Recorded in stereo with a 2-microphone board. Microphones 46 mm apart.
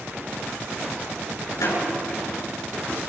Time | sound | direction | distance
1.6 | a door slam | 90° left | 9 m